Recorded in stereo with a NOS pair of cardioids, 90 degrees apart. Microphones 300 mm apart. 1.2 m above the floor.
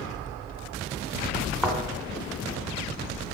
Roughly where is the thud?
Ahead.